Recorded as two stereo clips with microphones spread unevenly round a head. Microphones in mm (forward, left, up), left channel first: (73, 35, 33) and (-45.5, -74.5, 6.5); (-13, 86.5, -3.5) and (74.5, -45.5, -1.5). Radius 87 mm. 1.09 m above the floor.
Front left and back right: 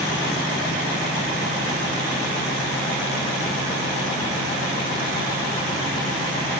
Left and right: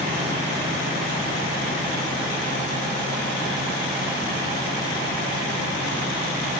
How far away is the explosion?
No explosion in this recording.